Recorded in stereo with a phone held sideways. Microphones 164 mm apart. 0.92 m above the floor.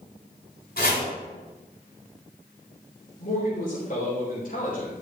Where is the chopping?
70° left (ahead or behind), 4 m.